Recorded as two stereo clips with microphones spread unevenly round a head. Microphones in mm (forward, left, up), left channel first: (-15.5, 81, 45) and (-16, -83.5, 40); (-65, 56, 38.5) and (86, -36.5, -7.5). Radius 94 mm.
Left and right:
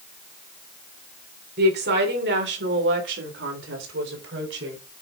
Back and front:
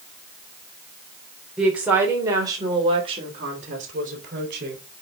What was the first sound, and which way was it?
A woman speaking, 120° right.